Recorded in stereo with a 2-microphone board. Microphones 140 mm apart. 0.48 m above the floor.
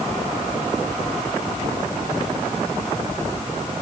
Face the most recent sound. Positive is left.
No sound to turn to.